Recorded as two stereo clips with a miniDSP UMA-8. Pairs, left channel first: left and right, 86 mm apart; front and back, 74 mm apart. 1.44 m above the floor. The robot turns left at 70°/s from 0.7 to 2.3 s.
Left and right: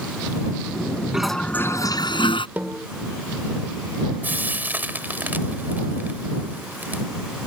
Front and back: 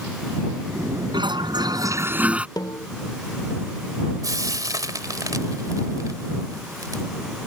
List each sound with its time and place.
1.1 s a toilet flushing: 175° right; by 2.5 s 105° left
2.6 s a snare drum: 20° right
4.2 s frying: 155° right